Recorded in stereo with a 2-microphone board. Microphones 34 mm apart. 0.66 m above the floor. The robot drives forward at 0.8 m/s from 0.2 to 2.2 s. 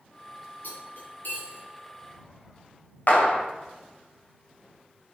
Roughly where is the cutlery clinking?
Left.